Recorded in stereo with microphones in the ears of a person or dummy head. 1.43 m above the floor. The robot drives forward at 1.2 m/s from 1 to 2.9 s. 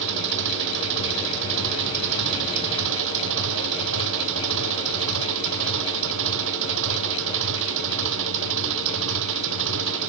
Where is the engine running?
65° right (ahead or behind); by 10.1 s 70° right (ahead or behind).